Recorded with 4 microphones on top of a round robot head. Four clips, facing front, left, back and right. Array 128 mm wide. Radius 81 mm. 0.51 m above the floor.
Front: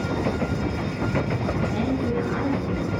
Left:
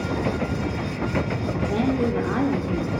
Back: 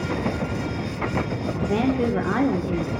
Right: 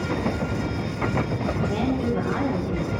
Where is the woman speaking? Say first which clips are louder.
Left 4 dB, back 6 dB; 160° left, 1.2 m.